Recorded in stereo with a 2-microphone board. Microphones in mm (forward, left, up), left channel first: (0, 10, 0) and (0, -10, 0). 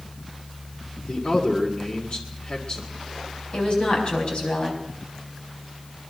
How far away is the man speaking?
About 2 m.